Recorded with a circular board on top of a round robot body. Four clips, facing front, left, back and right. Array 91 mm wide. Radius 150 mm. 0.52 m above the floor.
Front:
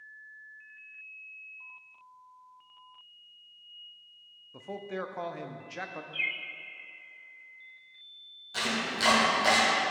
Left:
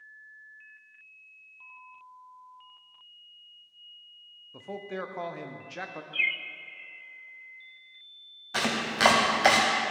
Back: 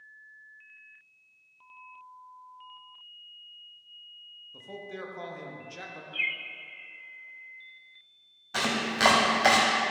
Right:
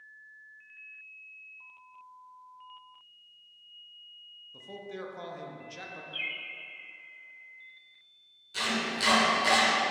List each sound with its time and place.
4.5 s a man speaking: 50° left, 0.8 m
6.1 s a bird: 100° left, 0.5 m
8.5 s chopping: 120° left, 0.9 m